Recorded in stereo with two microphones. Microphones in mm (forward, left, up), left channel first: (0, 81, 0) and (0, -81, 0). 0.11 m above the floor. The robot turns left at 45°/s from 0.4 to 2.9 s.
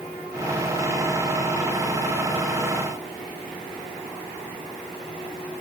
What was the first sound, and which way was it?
Only background noise.